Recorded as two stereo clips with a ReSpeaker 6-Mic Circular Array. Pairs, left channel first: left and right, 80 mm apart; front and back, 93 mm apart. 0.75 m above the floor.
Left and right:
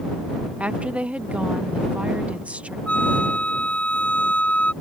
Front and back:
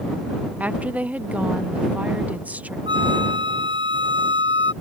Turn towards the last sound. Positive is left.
turn(degrees=165)